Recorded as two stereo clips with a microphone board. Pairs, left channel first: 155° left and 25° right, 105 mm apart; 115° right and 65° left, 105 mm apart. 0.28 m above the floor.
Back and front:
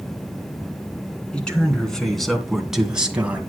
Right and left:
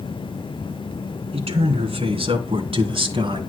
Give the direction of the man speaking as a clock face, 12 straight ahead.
9 o'clock.